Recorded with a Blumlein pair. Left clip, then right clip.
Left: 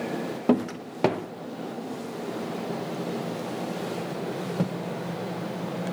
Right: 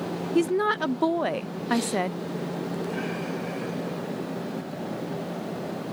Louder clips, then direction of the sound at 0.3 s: Right 6 dB; 45° right.